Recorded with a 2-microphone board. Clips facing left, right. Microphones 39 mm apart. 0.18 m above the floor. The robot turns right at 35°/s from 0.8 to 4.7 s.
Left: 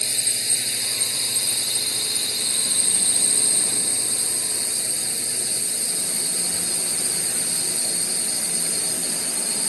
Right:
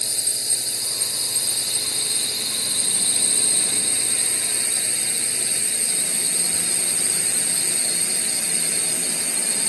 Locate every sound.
0.0 s a drone: 130° left; by 9.7 s 95° right